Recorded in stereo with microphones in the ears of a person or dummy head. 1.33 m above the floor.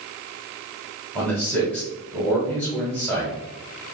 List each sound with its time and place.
1.1 s a man speaking: 5° left (ahead or behind), 1.8 m